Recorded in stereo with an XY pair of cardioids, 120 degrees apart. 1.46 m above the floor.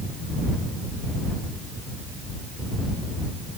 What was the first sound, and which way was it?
Only background noise.